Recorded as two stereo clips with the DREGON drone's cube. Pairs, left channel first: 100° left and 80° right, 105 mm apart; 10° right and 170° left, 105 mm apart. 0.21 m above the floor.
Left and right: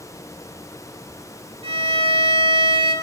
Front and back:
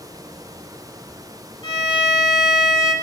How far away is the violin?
About 0.8 m.